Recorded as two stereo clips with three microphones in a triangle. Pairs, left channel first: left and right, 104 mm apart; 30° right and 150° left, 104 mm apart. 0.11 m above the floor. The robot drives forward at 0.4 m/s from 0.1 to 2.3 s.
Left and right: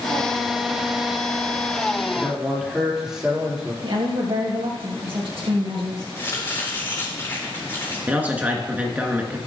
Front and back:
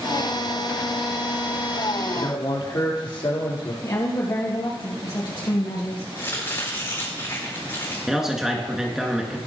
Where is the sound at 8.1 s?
130° right, 1.6 m.